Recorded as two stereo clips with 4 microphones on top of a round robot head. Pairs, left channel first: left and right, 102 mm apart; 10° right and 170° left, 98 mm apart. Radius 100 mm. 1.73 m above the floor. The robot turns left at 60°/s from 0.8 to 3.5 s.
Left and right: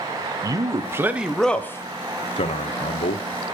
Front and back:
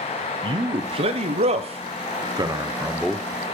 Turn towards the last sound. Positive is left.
turn(degrees=50)